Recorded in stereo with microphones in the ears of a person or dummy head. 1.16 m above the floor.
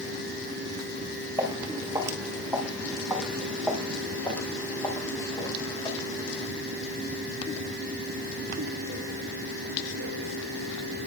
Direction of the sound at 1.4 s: 20° right (ahead or behind).